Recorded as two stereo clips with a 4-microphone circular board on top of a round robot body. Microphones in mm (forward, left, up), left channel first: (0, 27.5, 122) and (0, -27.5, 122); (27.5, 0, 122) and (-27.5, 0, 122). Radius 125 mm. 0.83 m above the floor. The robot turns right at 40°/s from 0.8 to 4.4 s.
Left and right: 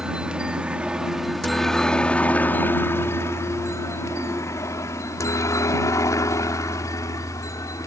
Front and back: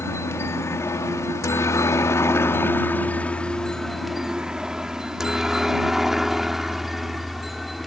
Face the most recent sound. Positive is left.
turn(degrees=90)